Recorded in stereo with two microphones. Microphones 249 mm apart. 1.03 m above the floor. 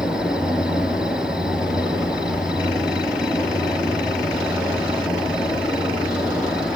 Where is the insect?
5° right (ahead or behind), 1.4 m.